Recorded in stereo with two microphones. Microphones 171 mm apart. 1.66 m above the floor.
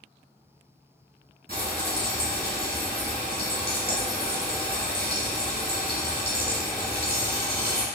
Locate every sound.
1.5 s frying: 65° right (ahead or behind), 1.4 m